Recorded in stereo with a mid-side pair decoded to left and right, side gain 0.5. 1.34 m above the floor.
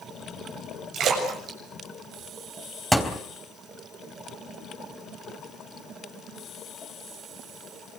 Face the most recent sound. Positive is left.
turn(degrees=0)